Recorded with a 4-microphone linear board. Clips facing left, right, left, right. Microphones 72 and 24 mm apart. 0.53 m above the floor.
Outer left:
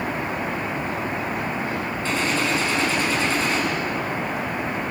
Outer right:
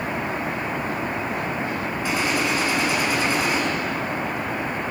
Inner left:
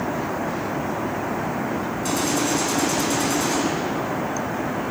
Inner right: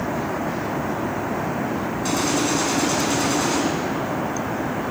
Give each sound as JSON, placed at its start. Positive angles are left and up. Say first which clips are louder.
{"t": 2.0, "sound": "a gunshot", "louder": "even, inner right 1 dB", "side_deg": -15, "distance_m": 5.0}